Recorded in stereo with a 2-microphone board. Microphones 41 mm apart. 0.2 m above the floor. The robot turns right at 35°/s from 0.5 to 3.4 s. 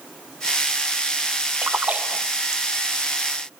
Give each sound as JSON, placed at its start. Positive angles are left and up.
{"t": 1.6, "sound": "a splash", "side_deg": -45}